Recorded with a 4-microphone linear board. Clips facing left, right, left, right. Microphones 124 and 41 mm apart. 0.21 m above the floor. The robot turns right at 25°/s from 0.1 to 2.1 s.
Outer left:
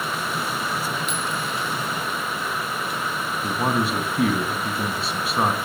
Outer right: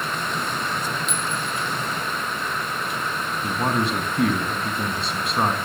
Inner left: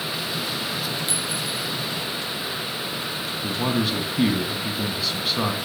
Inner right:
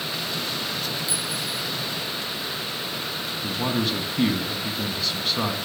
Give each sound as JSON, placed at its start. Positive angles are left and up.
{"t": 1.1, "sound": "a clink", "side_deg": 65, "distance_m": 3.5}
{"t": 3.4, "sound": "a man speaking", "side_deg": 5, "distance_m": 1.7}